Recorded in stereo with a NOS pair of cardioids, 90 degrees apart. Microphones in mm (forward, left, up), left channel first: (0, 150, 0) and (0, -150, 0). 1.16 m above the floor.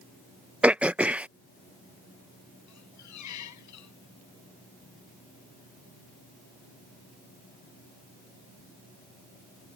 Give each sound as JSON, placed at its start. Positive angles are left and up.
{"t": 0.6, "sound": "throat clearing", "azimuth_deg": -5}
{"t": 2.7, "sound": "a squeak", "azimuth_deg": 70}